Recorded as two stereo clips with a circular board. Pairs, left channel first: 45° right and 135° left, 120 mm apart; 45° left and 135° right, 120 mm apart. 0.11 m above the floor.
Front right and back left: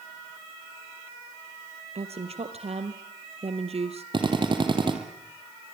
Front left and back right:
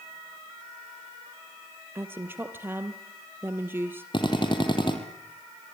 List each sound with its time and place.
1.9 s a woman speaking: 155° left, 2.5 m
4.1 s a drill: 90° left, 4 m